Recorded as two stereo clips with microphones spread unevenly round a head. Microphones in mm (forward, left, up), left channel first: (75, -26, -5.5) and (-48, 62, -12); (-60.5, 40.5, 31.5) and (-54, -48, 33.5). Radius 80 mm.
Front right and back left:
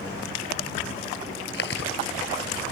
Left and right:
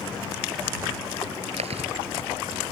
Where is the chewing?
60° right.